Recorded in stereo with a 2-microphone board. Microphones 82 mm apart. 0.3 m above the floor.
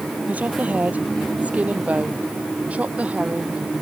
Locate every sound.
0.3 s a woman speaking: 15° right (ahead or behind)